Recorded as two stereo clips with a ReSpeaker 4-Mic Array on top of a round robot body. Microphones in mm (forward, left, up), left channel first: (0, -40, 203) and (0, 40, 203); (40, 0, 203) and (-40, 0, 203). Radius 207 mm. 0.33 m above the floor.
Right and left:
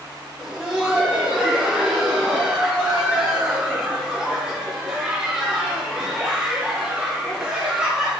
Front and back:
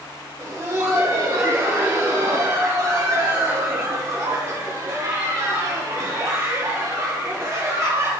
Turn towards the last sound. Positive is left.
turn(degrees=165)